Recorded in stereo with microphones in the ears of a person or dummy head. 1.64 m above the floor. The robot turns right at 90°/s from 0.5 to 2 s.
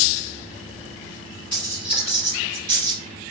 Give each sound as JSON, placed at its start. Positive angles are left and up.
{"t": 1.5, "sound": "a dropped coin", "side_deg": 0, "distance_m": 1.7}